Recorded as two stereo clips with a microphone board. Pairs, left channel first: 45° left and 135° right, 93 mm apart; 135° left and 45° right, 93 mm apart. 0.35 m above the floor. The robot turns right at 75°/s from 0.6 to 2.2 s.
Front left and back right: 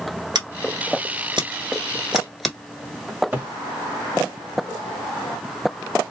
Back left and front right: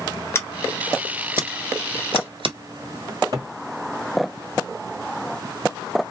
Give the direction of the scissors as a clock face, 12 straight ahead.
6 o'clock.